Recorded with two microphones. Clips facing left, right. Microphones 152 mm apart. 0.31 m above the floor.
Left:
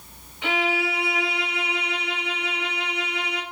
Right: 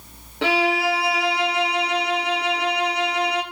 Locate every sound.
0.4 s a violin: 85° right, 3 m